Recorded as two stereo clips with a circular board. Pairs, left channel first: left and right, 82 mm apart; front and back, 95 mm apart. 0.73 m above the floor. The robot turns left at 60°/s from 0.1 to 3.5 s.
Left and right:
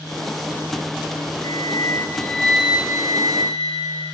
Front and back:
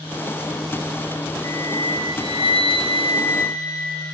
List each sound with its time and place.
1.4 s a flute: 50° left, 7 m; by 4.1 s 70° right, 7 m